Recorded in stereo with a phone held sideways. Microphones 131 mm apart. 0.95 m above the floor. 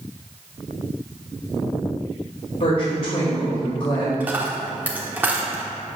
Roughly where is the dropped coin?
Centre.